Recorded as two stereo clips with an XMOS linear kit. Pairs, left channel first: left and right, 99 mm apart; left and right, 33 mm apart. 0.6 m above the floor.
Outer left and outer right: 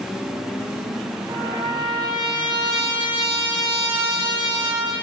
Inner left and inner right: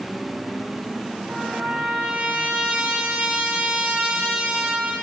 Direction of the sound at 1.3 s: 50° right (ahead or behind).